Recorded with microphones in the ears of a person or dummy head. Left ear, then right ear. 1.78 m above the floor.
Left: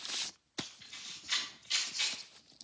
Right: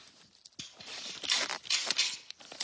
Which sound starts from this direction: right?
A camera shutter, at 0.6 s.